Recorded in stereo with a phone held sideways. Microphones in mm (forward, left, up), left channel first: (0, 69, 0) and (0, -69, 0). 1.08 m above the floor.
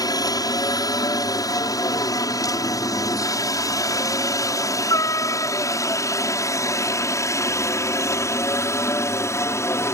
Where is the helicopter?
30° left (ahead or behind); by 9.9 s 20° left (ahead or behind).